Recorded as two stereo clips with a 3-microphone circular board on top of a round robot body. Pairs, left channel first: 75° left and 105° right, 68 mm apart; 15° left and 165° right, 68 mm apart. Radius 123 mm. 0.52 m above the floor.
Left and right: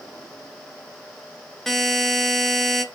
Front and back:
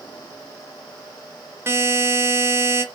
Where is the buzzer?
155° left, 0.8 m.